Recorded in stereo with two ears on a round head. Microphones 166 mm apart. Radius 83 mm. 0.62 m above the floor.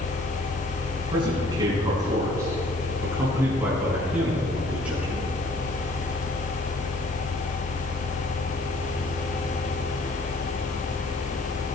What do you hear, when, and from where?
1.1 s a man speaking: 25° right (ahead or behind), 5 m; by 5.4 s 5° right (ahead or behind), 7.5 m